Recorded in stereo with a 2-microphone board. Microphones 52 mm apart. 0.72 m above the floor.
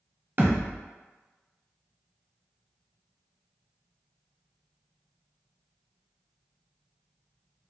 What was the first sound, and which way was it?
A thud, 45° right (ahead or behind).